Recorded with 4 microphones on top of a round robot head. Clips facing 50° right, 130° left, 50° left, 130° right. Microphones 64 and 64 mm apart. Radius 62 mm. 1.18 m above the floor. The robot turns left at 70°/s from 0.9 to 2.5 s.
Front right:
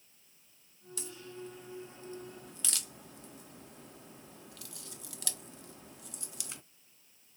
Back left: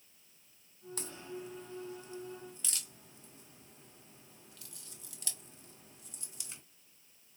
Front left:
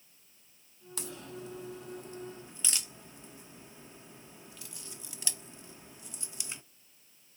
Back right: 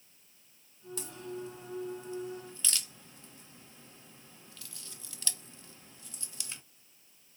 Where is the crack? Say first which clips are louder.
Back left 1 dB, back right 2 dB; 80° left, 0.5 m; by 6.6 s 25° right, 0.5 m.